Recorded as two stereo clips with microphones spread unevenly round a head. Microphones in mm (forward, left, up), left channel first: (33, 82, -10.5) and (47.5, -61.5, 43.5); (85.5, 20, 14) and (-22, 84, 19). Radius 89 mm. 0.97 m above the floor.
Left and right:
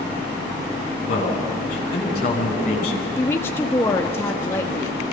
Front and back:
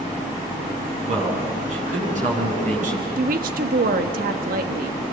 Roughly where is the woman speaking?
Behind.